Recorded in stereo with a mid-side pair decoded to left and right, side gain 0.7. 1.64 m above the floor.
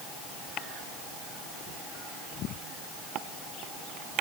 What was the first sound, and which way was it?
Only background noise.